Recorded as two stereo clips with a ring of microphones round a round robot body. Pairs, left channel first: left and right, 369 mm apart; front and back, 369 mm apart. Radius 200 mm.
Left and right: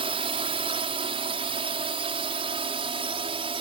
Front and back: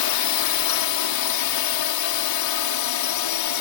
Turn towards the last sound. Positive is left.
turn(degrees=-15)